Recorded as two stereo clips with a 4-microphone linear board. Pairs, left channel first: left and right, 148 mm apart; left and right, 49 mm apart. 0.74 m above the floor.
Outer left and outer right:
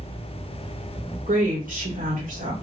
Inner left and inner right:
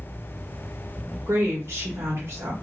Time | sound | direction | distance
1.3 | a woman speaking | 65° right (ahead or behind) | 1.2 m